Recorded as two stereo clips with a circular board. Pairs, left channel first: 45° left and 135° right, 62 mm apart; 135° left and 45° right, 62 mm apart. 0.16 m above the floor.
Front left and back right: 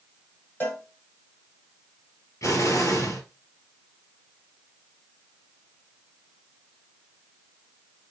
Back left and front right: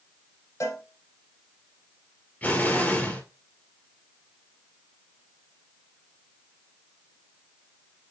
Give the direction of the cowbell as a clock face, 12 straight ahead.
9 o'clock.